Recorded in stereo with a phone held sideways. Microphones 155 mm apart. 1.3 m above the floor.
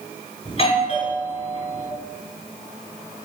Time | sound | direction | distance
0.5 | a doorbell | 40° left (ahead or behind) | 5 m